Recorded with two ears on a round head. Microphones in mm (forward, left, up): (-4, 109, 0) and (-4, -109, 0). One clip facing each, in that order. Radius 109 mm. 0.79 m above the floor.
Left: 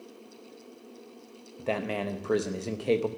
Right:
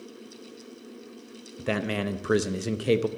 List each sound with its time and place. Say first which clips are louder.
1.6 s a man speaking: right 2 dB; 20° right (ahead or behind), 0.6 m